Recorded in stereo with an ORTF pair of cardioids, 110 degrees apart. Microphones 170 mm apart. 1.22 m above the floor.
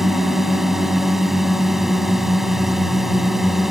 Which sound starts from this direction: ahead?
A drone, at 0.0 s.